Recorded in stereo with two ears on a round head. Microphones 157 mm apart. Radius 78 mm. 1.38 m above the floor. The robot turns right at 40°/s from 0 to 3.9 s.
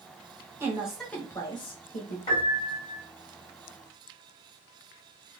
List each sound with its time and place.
0.6 s a woman speaking: 15° right, 0.9 m; by 2.2 s 50° left, 0.9 m
2.3 s a piano: 130° left, 1.6 m; by 3.0 s 160° left, 1.6 m